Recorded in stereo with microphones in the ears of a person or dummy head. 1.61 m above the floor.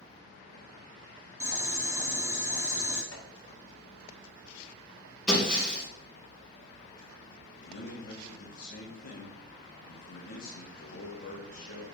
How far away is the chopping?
About 2.5 m.